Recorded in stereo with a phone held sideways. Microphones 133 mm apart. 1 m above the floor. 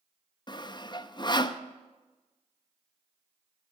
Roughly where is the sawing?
Left.